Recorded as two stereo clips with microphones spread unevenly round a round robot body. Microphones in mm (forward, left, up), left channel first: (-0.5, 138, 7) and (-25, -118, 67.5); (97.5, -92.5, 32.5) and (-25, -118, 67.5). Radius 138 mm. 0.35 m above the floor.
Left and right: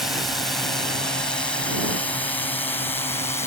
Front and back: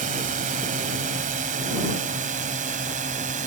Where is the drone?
170° left; by 3.5 s 155° left.